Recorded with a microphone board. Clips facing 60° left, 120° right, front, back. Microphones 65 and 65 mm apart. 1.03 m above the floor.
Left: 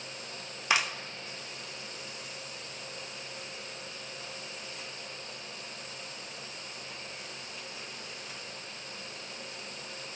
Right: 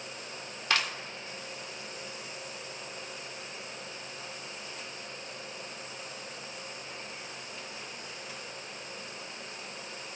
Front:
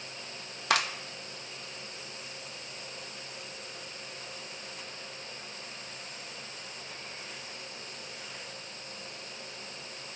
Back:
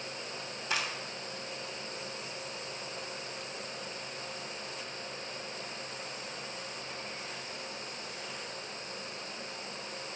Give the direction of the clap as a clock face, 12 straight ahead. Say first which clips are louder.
Left 1 dB, front 7 dB; 12 o'clock.